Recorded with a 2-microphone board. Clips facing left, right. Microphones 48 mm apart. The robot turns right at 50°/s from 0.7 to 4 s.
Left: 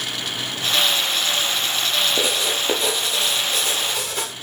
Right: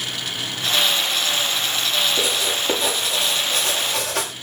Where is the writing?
150° left, 8 m; by 4.3 s 120° right, 8 m.